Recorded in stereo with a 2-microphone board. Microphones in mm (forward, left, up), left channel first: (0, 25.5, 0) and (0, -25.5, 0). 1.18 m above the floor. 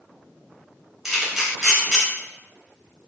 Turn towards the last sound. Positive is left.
turn(degrees=-5)  # may be behind; listen again after turning